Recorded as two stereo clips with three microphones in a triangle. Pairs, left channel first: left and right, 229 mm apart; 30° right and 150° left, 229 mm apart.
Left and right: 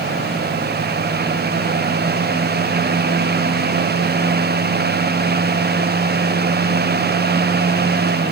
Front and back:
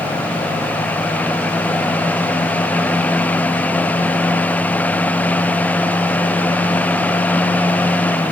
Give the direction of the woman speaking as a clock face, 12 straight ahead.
No woman speaking in this recording.